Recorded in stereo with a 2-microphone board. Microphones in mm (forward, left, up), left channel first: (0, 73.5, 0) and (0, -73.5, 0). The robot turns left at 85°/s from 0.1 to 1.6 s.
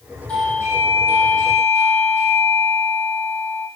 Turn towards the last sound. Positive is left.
turn(degrees=-105)